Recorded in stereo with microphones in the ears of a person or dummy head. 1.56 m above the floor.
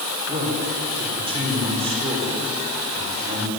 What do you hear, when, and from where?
0.3 s a man speaking: 25° right (ahead or behind), 6 m